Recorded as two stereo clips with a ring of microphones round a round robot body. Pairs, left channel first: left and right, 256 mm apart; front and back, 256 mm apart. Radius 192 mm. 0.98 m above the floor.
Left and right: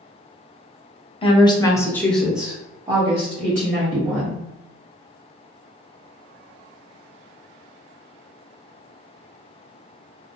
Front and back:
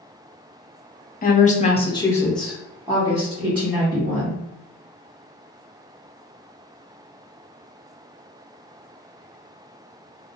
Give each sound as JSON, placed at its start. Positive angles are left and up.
{"t": 1.2, "sound": "a woman speaking", "azimuth_deg": 30, "distance_m": 0.9}